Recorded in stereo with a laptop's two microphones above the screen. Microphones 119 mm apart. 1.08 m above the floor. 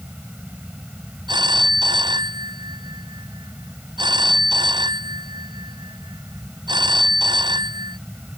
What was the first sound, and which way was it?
A fan, 10° right (ahead or behind).